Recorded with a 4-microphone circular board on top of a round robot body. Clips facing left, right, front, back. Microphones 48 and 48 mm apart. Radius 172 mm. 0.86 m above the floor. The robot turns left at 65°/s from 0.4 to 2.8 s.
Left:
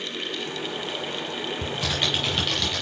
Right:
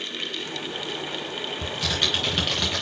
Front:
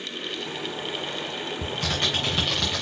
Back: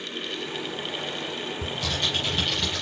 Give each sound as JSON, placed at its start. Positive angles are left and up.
{"t": 1.6, "sound": "typing on a keyboard", "azimuth_deg": 45, "distance_m": 0.7}